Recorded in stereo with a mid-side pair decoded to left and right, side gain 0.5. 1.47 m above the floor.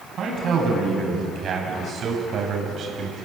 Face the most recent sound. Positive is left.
turn(degrees=-50)